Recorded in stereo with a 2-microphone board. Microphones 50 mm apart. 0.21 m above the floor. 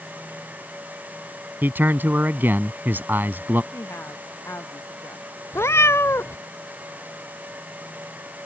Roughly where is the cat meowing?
Left.